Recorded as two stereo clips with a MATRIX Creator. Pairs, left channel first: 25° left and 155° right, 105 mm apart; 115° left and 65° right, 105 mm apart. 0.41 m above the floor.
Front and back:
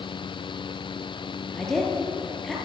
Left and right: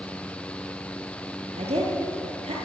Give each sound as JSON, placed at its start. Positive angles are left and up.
{"t": 1.5, "sound": "a woman speaking", "azimuth_deg": -60, "distance_m": 7.5}